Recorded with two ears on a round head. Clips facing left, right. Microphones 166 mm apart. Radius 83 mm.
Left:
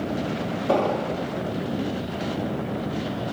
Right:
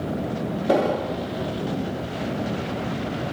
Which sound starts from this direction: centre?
An explosion, at 0.7 s.